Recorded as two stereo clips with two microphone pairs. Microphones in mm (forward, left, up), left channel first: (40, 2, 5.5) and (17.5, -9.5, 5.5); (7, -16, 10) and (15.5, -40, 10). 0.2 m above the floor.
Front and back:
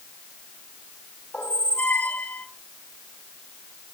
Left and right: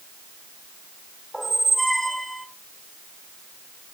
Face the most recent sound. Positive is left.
turn(degrees=30)